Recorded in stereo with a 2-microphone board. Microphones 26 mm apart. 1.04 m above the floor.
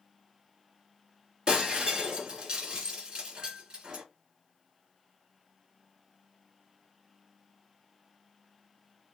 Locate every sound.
1.5 s breaking glass: 40° right (ahead or behind), 2.0 m